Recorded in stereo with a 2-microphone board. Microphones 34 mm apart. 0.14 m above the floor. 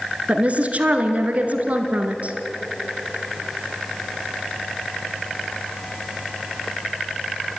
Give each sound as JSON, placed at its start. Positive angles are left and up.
{"t": 0.3, "sound": "a woman speaking", "side_deg": -45, "distance_m": 2.0}